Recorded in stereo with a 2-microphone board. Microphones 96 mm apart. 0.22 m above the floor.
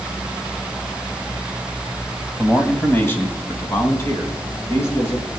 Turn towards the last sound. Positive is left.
turn(degrees=25)  # may be behind; listen again after turning